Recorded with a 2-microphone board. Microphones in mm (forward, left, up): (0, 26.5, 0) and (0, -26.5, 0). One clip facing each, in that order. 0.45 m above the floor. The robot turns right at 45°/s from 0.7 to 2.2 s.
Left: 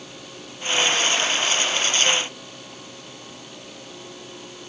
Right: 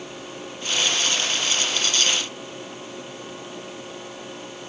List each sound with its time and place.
Only background noise.